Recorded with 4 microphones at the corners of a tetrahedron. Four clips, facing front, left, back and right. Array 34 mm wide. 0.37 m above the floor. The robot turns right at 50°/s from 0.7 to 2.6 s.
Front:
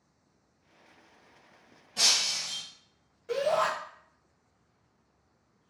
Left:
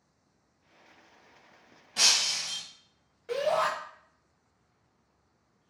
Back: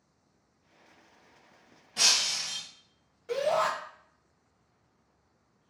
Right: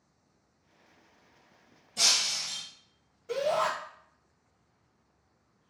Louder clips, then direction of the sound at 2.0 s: Left 1 dB, even; 100° left.